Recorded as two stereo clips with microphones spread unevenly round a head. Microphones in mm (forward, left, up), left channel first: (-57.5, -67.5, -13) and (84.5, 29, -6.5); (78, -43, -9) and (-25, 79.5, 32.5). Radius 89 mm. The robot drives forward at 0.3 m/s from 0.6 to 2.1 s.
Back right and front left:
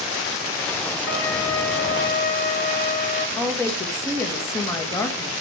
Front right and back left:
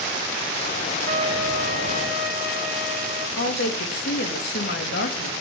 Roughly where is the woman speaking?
Right.